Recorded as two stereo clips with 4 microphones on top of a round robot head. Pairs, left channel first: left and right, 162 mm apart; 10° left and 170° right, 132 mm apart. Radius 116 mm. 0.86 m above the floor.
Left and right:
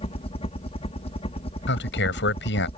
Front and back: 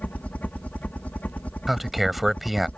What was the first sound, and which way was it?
A helicopter, 80° left.